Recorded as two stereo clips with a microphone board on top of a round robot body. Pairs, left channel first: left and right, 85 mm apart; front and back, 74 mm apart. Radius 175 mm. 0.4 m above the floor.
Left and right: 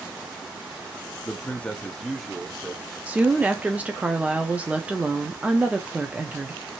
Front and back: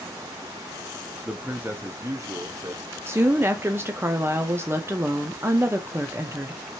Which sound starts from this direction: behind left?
A man speaking, at 1.2 s.